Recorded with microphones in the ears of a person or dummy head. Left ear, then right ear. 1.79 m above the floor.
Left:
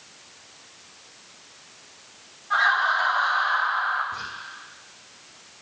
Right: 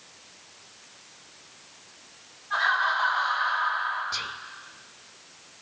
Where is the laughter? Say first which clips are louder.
Left 3 dB; 60° left (ahead or behind), 10 m.